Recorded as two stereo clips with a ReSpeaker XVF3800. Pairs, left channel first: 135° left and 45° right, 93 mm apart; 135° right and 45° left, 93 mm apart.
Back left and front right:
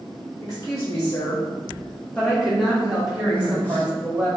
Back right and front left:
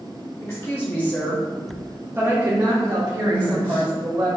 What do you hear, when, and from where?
0.4 s a woman speaking: 175° left, 1.3 m; by 4.3 s 30° left, 1.9 m
3.3 s a man speaking: straight behind, 1.0 m